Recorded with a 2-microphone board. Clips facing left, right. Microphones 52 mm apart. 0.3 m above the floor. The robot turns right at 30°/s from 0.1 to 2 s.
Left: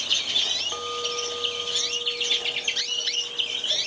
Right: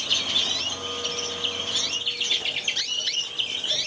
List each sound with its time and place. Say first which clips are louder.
0.7 s a clink: left 2 dB; 35° left, 1.5 m; by 3.7 s 75° left, 1.5 m